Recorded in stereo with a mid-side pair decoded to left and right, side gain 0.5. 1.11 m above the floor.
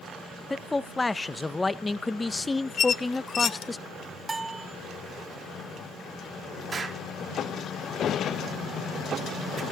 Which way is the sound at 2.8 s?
45° left.